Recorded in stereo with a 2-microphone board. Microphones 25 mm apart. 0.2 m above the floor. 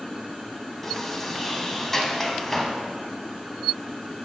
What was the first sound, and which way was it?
A sliding door, 15° left (ahead or behind).